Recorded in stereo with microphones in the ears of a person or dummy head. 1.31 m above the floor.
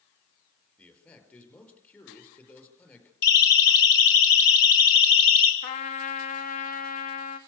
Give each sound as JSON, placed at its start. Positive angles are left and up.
{"t": 0.8, "sound": "a man speaking", "side_deg": 10, "distance_m": 5.0}
{"t": 3.2, "sound": "a siren", "side_deg": 65, "distance_m": 5.0}
{"t": 5.6, "sound": "a trumpet", "side_deg": 55, "distance_m": 1.8}